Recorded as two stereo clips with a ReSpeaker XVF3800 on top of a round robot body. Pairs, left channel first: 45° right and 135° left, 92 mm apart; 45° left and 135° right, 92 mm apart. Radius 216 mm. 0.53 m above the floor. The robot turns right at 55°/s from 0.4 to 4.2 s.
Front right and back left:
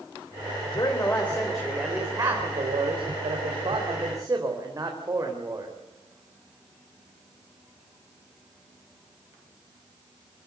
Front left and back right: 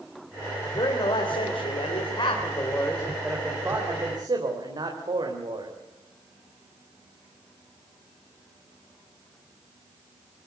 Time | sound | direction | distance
0.8 | a man speaking | straight ahead | 3.5 m